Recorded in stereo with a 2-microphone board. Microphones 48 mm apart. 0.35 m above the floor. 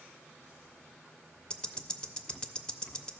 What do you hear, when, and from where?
1.5 s ticking: 20° left (ahead or behind), 0.5 m